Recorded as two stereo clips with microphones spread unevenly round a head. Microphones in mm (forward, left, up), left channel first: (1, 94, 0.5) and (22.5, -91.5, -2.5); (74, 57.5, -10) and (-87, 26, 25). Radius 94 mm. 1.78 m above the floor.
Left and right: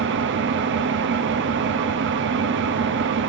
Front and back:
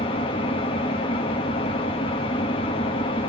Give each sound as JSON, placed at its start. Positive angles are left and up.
{"t": 0.0, "sound": "an engine running", "azimuth_deg": -60, "distance_m": 0.7}